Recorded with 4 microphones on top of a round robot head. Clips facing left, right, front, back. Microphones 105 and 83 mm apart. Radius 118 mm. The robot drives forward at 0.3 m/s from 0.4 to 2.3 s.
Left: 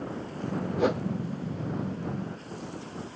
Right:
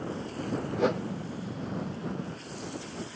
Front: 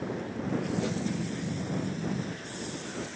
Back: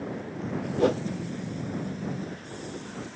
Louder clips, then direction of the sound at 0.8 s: Left 1 dB, back 8 dB; straight behind.